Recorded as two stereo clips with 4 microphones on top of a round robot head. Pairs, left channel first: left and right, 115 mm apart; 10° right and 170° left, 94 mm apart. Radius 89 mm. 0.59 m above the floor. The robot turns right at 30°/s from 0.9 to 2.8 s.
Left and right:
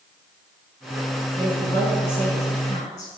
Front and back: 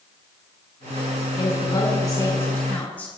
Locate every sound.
1.4 s a woman speaking: 20° left, 5.5 m; by 3.1 s 60° left, 5.5 m